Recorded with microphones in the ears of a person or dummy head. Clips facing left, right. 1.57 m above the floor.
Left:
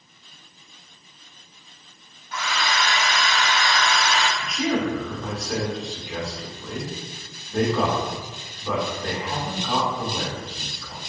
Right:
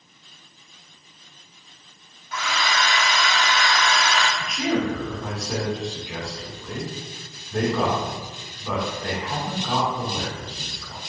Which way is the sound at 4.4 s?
Centre (ahead or behind).